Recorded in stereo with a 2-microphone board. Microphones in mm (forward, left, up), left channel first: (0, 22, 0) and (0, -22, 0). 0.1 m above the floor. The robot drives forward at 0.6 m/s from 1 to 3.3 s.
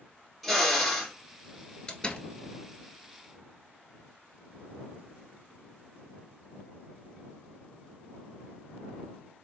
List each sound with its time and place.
0.4 s a drill: centre (ahead or behind), 1.8 m
1.9 s a door slam: 20° left (ahead or behind), 0.9 m